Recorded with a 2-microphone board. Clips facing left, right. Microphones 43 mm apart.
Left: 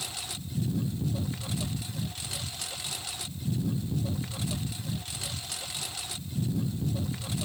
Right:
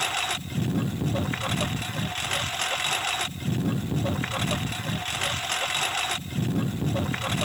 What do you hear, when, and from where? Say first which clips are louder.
0.0 s a lawn mower: right 12 dB; 55° right (ahead or behind)